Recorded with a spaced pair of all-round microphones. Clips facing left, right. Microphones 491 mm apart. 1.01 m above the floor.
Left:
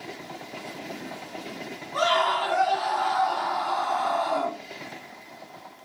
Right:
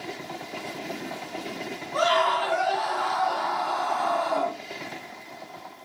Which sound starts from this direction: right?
A scream, at 1.9 s.